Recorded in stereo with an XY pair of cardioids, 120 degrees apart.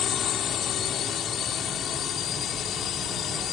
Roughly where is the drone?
Ahead left.